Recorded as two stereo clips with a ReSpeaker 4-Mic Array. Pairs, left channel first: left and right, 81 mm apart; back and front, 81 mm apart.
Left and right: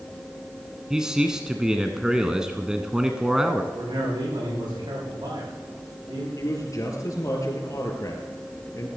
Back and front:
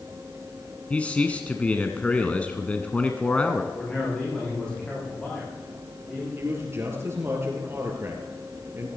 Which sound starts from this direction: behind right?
A man speaking, at 0.9 s.